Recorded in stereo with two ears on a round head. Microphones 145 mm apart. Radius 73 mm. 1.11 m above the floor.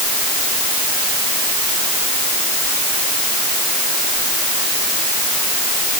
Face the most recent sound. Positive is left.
No sound to turn to.